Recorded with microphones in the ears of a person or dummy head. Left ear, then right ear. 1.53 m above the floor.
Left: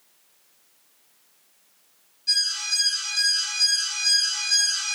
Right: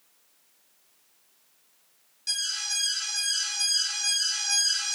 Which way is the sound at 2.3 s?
35° right (ahead or behind).